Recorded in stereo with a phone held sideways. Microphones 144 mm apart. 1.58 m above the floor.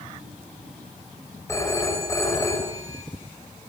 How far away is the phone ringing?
About 6 m.